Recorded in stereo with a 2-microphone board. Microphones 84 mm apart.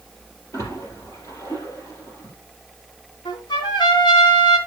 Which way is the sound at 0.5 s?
40° left (ahead or behind).